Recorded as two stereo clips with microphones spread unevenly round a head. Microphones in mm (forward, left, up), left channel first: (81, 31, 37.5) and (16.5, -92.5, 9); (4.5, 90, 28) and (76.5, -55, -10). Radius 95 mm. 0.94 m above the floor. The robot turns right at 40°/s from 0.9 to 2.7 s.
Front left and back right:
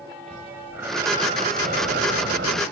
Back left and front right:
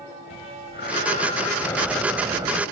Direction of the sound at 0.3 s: 160° left.